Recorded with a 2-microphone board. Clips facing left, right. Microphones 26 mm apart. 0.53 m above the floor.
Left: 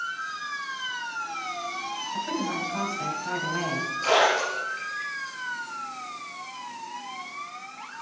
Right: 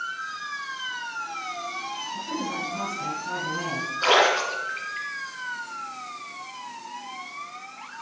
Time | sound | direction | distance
2.1 | a woman speaking | 65° left (ahead or behind) | 3 m
4.0 | a splash | 70° right (ahead or behind) | 3.5 m